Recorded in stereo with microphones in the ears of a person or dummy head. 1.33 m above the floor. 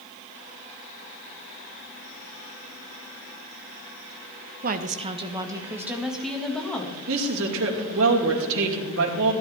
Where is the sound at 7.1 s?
70° right (ahead or behind), 2.5 m.